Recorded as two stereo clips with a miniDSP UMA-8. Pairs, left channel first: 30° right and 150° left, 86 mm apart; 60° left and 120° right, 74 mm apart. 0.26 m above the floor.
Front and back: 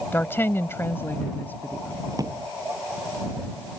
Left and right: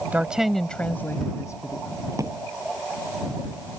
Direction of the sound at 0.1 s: 75° right.